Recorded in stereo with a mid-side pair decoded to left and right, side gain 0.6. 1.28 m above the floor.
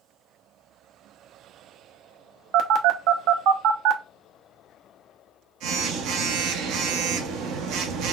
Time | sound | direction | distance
2.5 | a phone buzzing | 65° right | 0.6 m